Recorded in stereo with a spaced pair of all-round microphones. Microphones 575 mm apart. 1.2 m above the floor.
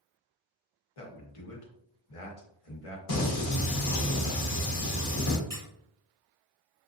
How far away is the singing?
About 1.1 m.